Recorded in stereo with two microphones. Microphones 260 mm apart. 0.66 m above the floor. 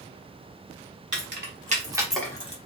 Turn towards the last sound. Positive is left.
turn(degrees=25)  # may be behind; listen again after turning